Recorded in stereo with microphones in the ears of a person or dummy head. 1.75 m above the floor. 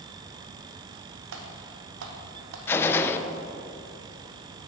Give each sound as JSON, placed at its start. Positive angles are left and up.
{"t": 1.3, "sound": "typing on a keyboard", "side_deg": -80, "distance_m": 1.3}
{"t": 2.7, "sound": "a gunshot", "side_deg": 15, "distance_m": 0.5}